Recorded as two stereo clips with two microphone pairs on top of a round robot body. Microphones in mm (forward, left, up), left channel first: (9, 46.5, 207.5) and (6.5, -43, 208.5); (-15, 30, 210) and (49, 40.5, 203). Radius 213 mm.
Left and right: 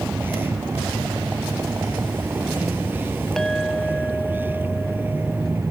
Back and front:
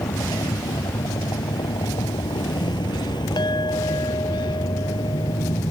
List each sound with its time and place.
0.0 s a vehicle: 160° right
3.4 s a clink: 175° left